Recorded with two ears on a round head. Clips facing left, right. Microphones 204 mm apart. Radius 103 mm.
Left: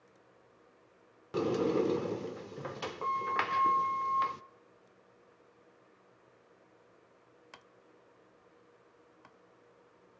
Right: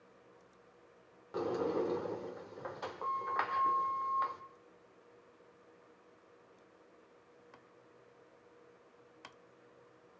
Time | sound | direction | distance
1.3 | a sliding door | 45° left (ahead or behind) | 0.8 m